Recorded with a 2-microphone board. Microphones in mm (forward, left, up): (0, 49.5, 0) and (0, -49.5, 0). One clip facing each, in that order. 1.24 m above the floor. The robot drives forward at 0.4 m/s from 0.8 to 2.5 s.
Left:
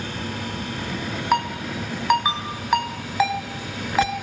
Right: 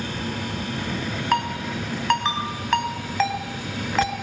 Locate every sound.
1.3 s a ringtone: 10° left (ahead or behind), 4.5 m